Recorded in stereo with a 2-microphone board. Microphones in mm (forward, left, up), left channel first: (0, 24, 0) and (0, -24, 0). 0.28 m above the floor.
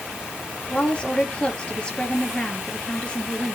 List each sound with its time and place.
0.7 s a woman speaking: 20° left (ahead or behind), 5 m